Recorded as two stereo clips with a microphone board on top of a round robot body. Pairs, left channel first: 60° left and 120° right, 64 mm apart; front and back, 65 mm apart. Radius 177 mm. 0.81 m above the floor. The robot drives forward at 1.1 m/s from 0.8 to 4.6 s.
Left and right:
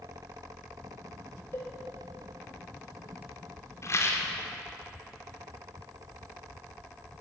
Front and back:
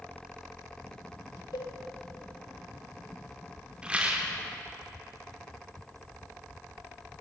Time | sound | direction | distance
1.5 | a cowbell | 5° left | 4 m
3.8 | a rattle | 100° left | 2.5 m